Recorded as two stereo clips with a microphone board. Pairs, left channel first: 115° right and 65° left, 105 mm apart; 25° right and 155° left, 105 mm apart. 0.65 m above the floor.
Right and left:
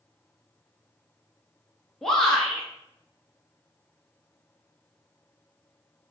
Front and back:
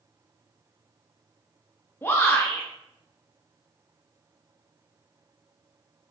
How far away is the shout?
About 0.6 m.